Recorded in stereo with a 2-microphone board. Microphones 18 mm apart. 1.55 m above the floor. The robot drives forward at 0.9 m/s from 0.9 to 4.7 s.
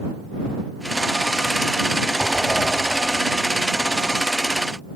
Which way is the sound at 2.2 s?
25° left (ahead or behind).